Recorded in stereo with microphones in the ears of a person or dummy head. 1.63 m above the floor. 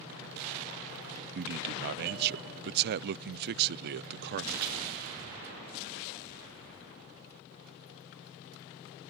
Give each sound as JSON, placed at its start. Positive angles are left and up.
{"t": 1.4, "sound": "a man speaking", "side_deg": -55}